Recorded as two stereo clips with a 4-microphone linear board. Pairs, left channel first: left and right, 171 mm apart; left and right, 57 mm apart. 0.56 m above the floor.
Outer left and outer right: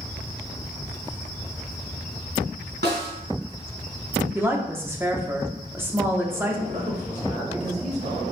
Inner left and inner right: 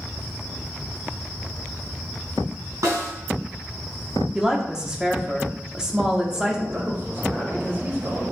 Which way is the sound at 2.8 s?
75° right (ahead or behind).